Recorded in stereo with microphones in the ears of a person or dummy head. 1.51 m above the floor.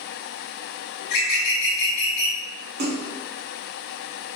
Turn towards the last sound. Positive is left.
turn(degrees=-45)  # may be behind; listen again after turning